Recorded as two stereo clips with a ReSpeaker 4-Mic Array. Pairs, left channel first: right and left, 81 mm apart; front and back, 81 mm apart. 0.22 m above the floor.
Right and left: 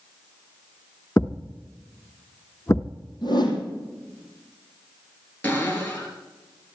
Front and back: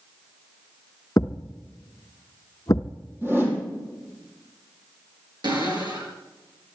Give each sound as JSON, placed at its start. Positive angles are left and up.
{"t": 1.2, "sound": "a thud", "azimuth_deg": -40, "distance_m": 1.0}
{"t": 3.2, "sound": "a whoosh", "azimuth_deg": -120, "distance_m": 4.0}
{"t": 5.4, "sound": "a cupboard door", "azimuth_deg": -160, "distance_m": 5.0}